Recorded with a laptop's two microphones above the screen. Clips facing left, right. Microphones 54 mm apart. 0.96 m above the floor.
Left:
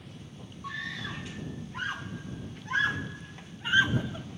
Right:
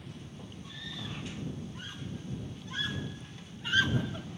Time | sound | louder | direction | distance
0.6 | a scream | left 8 dB | 75° left (ahead or behind) | ?